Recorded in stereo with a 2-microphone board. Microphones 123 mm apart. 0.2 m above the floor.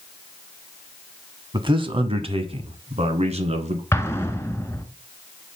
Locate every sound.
1.5 s a man speaking: 40° right (ahead or behind), 1.3 m; by 3.8 s 60° right (ahead or behind), 2 m
3.9 s an explosion: 20° left (ahead or behind), 1.1 m